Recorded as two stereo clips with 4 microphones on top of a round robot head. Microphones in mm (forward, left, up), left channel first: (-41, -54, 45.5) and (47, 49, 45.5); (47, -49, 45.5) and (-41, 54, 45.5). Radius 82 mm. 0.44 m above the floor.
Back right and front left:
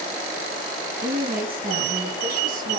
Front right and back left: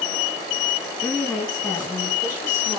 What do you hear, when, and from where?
1.0 s a woman speaking: 45° left, 6 m; by 2.8 s 60° left, 6 m